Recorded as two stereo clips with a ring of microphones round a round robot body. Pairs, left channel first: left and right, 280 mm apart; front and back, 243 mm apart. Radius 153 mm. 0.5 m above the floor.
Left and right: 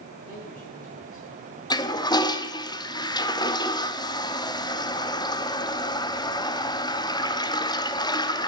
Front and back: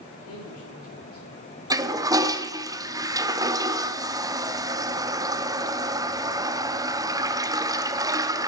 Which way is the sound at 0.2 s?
25° left.